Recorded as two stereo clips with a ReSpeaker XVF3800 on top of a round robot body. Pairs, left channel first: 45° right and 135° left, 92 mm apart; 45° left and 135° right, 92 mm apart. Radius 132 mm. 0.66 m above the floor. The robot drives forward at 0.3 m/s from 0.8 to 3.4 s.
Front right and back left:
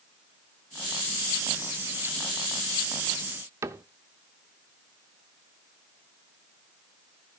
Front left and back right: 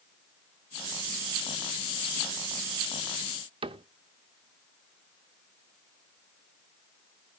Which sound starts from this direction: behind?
A cupboard door, at 3.6 s.